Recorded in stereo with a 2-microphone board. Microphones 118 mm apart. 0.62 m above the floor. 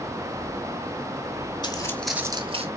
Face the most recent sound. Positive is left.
turn(degrees=-55)  # may be behind; listen again after turning